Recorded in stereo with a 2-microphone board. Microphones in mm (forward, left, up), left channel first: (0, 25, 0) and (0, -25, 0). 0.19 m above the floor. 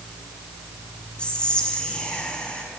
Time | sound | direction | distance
1.2 | whispering | 20° left (ahead or behind) | 1.1 m